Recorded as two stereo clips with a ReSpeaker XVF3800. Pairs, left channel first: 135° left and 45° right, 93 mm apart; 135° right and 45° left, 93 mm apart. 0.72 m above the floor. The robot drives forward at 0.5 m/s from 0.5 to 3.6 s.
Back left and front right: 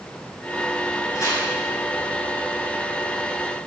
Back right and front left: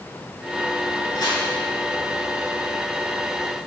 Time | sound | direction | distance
1.1 | tearing paper | 175° right | 6.5 m